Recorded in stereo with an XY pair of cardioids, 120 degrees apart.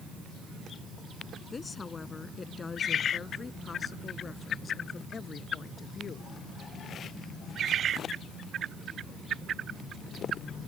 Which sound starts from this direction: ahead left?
A woman speaking, at 1.5 s.